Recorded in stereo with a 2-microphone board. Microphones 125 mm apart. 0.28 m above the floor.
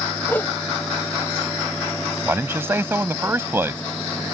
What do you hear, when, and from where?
0.3 s a whoosh: 15° left (ahead or behind)
2.2 s a man speaking: 20° right (ahead or behind)